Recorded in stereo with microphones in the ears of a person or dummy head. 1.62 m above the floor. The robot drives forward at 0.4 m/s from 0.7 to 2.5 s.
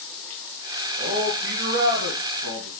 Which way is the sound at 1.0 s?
50° right (ahead or behind).